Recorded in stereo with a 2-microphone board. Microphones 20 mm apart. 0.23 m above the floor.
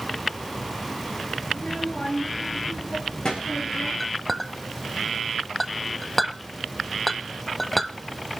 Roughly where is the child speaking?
Left.